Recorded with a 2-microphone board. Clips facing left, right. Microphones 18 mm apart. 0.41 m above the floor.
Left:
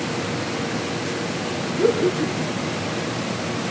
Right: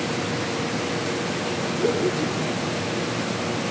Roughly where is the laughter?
Left.